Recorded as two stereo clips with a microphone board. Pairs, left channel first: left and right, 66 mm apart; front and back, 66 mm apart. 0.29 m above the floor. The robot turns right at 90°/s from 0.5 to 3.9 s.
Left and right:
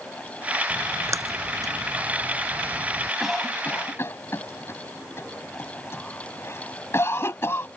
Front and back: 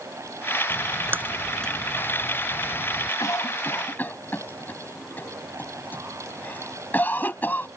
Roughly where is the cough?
Ahead.